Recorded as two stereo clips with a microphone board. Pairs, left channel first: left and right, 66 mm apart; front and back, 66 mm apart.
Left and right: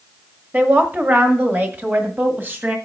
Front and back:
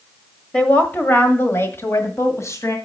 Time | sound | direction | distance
0.5 | a woman speaking | 55° right | 1.3 m